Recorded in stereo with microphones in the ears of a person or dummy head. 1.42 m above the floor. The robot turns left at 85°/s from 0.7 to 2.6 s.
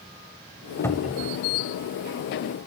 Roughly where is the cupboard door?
Ahead.